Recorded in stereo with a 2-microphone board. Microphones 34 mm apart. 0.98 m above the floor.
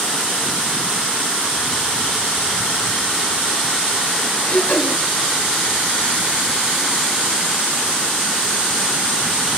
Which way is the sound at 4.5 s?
40° left (ahead or behind).